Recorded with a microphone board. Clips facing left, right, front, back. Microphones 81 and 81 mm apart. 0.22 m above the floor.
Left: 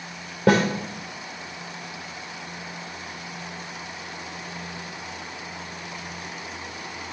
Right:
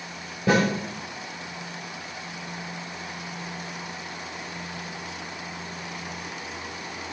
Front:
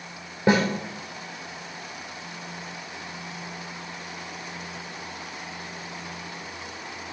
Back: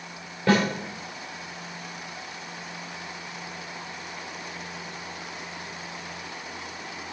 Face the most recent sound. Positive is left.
turn(degrees=65)